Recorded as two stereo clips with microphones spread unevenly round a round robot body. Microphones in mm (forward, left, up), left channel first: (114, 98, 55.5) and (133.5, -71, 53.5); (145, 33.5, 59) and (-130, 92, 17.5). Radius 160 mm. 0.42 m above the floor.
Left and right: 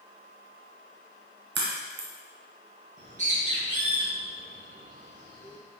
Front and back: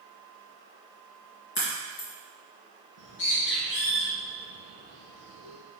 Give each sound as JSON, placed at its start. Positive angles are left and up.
{"t": 1.6, "sound": "a crack", "azimuth_deg": -70, "distance_m": 1.8}
{"t": 3.0, "sound": "a bird", "azimuth_deg": -45, "distance_m": 2.5}